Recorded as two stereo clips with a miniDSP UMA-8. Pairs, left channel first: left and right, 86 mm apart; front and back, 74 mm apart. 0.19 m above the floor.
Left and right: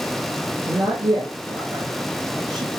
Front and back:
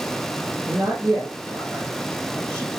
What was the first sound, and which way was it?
A man speaking, 115° right.